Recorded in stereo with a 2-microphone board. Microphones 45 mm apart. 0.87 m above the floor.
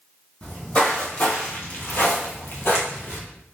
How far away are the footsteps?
About 1.9 m.